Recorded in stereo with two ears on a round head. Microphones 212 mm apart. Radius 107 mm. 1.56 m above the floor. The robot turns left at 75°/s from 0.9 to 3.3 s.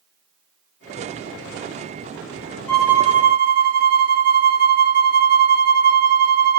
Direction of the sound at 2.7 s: 10° left.